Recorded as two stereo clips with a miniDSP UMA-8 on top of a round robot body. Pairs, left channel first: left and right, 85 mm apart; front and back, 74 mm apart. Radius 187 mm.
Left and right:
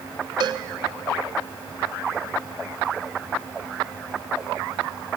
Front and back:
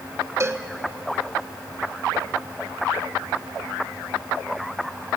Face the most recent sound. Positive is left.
turn(degrees=-125)